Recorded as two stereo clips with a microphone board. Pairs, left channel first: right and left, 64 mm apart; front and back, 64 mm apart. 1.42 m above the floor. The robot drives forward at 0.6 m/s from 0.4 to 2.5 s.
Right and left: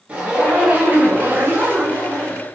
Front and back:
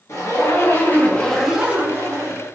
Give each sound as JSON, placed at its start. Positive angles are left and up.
{"t": 0.1, "sound": "a zipper", "azimuth_deg": 25, "distance_m": 0.8}